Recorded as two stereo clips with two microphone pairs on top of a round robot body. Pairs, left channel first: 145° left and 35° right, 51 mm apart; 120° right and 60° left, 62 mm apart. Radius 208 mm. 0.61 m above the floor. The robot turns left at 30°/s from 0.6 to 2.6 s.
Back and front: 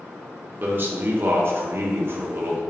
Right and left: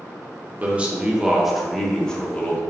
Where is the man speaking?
Straight ahead, 1.1 m; by 2.6 s 60° right, 1.1 m.